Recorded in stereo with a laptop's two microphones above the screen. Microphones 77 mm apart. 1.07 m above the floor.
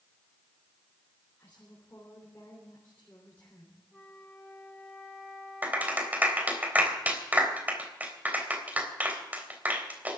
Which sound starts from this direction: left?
A woman speaking, at 1.4 s.